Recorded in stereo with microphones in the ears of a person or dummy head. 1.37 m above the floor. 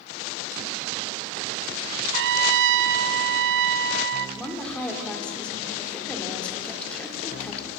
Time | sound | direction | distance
2.1 | a trumpet | 70° right (ahead or behind) | 0.5 m
4.4 | a woman speaking | 5° left (ahead or behind) | 4 m